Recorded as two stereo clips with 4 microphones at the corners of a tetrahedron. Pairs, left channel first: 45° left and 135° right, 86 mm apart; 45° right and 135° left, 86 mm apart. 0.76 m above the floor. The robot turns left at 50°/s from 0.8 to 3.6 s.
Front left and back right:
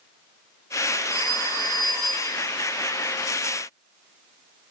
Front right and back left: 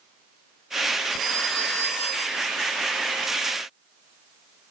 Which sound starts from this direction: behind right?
A phone ringing, at 1.1 s.